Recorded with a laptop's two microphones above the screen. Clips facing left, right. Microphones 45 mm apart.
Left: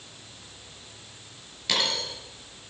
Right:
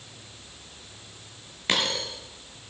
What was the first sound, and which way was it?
A dropped coin, 35° right (ahead or behind).